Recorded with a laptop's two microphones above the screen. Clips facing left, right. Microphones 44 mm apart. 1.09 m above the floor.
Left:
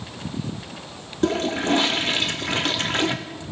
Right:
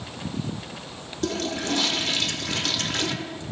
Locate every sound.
1.2 s a toilet flushing: 30° left (ahead or behind), 0.8 m